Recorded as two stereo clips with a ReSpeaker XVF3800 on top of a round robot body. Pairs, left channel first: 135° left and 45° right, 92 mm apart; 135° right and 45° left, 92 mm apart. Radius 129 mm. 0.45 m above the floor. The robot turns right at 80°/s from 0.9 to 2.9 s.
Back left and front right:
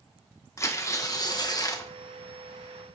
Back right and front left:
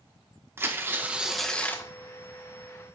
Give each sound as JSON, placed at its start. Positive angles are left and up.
{"t": 0.6, "sound": "tearing paper", "azimuth_deg": 95, "distance_m": 1.4}